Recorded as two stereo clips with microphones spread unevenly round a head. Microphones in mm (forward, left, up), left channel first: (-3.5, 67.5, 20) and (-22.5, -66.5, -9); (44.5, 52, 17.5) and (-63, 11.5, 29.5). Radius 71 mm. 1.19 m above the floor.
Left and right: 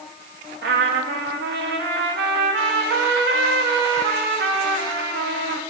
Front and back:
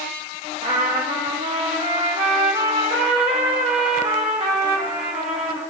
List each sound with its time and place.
0.6 s a trumpet: 105° right, 1.2 m